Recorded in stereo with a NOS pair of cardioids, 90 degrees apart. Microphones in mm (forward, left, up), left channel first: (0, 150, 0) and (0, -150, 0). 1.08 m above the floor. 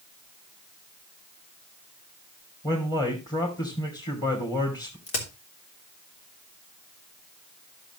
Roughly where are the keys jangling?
I don't hear keys jangling.